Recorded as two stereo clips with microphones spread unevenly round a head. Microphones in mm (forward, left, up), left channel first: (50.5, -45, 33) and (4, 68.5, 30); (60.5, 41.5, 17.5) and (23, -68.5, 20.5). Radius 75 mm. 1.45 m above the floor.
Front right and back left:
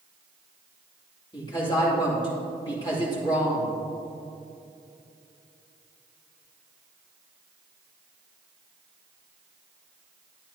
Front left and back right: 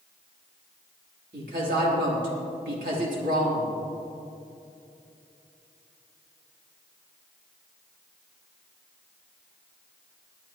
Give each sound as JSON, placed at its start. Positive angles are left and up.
{"t": 1.3, "sound": "a woman speaking", "azimuth_deg": -130, "distance_m": 3.0}